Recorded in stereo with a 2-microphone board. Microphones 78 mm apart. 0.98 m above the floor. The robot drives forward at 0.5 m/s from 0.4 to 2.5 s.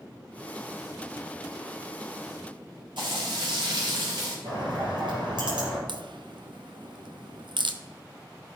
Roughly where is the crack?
Right.